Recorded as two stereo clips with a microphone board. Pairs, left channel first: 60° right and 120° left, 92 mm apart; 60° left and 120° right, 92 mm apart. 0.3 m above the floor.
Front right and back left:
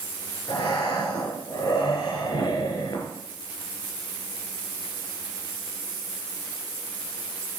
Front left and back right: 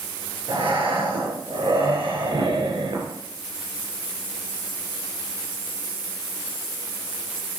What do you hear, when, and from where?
0.5 s breathing: 105° right, 2.5 m